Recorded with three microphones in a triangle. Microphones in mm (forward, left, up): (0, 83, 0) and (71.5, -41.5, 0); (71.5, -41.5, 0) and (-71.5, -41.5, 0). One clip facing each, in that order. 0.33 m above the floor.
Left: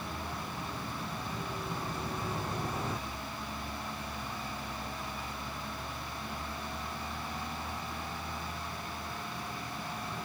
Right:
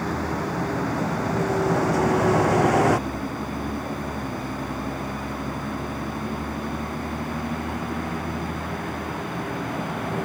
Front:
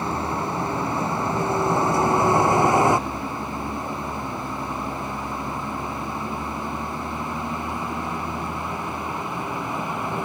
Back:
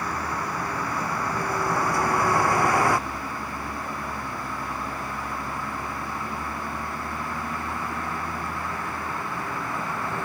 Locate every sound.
0.0 s a vehicle: 65° right; by 10.2 s 75° right